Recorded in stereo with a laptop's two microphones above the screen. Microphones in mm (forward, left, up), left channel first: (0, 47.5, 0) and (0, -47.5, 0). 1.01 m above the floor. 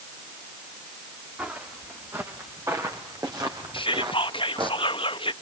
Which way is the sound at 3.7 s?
65° left (ahead or behind).